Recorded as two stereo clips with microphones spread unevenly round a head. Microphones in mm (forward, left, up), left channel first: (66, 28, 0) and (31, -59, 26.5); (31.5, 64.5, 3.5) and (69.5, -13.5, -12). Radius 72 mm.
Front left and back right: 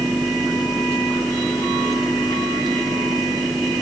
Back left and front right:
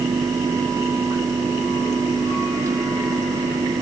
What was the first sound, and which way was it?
Only background noise.